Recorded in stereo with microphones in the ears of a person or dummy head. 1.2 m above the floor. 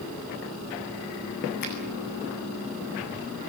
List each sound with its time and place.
1.6 s a finger snap: 55° left (ahead or behind), 8.5 m